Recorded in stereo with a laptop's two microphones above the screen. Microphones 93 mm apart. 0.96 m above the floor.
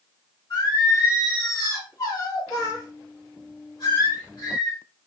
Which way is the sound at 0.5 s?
45° left (ahead or behind).